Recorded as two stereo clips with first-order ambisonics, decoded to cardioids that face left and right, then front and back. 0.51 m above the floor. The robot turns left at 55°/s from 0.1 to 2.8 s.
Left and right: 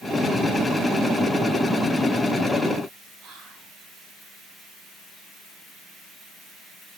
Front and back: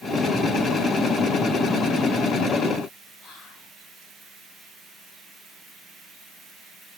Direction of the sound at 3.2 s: 50° right.